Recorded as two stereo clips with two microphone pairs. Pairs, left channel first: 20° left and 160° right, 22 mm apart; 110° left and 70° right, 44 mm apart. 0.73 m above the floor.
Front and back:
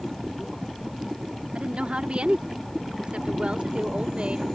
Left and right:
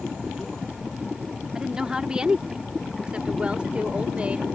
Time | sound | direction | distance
1.6 | a woman speaking | 145° right | ?